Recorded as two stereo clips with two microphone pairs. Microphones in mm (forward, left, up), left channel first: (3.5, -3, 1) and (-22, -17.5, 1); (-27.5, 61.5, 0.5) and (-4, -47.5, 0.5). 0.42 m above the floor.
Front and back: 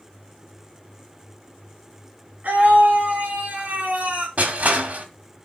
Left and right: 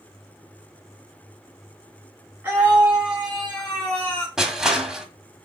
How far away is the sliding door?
I don't hear a sliding door.